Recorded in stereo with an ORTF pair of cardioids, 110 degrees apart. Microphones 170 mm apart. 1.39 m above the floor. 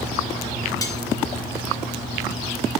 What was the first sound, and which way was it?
Cutlery clinking, 20° left.